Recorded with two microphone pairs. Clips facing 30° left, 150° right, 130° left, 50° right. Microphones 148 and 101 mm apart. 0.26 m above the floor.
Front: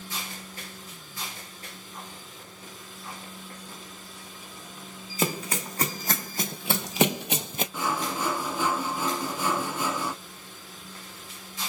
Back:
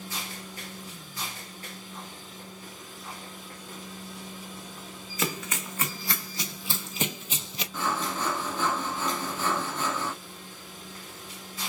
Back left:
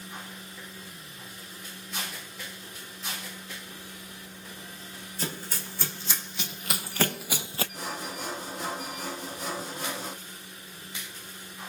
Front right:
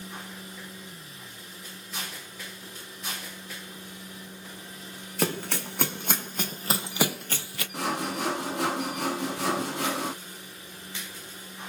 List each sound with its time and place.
5.2 s running footsteps: 30° right, 1.3 m; by 7.6 s 75° left, 0.5 m
7.7 s sawing: 50° right, 0.8 m